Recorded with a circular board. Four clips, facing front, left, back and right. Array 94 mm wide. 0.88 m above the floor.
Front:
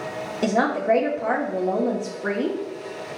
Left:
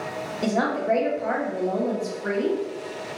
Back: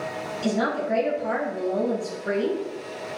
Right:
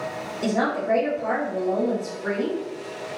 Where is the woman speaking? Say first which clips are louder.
Even, front 4 dB; 5° left, 1.8 m.